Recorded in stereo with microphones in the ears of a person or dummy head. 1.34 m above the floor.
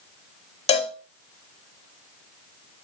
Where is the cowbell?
30° left (ahead or behind), 1.1 m.